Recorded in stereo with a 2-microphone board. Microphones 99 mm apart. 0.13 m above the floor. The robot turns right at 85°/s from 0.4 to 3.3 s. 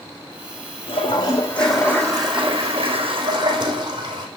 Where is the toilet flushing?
110° left, 3.5 m; by 4.3 s 45° right, 3.5 m.